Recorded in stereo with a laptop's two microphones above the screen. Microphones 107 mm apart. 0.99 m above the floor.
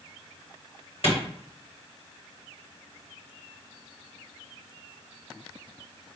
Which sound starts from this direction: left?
A clap, at 1.0 s.